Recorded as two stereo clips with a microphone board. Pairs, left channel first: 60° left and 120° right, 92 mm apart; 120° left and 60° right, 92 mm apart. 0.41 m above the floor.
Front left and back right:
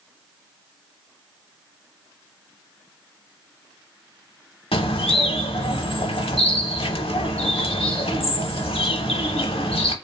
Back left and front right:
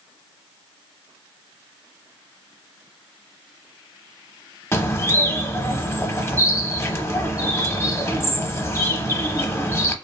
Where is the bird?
60° left, 0.6 m.